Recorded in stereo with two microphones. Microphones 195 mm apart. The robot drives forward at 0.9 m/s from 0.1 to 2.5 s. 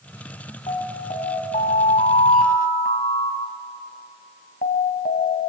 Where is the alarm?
35° left (ahead or behind), 3.5 m; by 5.5 s 45° left (ahead or behind), 3 m.